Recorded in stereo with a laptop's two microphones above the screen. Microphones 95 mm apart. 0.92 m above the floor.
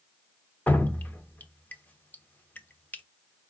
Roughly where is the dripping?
Centre.